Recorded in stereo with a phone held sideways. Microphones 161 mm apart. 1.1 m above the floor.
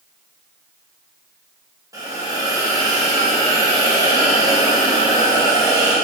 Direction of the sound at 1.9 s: 20° right (ahead or behind).